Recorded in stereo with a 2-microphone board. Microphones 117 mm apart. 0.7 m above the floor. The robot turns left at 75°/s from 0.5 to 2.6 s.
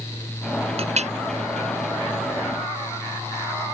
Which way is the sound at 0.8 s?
60° right (ahead or behind).